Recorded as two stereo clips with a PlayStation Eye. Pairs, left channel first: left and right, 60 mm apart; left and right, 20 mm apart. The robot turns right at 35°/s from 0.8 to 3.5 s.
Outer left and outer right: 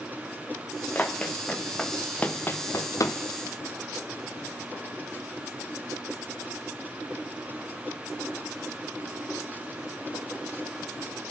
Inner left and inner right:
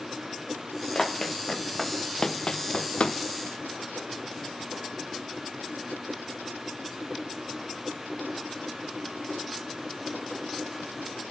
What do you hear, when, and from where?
0.9 s running footsteps: 30° left (ahead or behind), 1.8 m; by 3.2 s 60° left (ahead or behind), 1.0 m